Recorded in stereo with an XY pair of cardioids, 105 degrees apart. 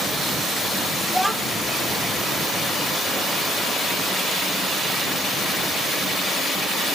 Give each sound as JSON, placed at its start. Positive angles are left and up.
{"t": 1.1, "sound": "a child speaking", "azimuth_deg": 5, "distance_m": 1.6}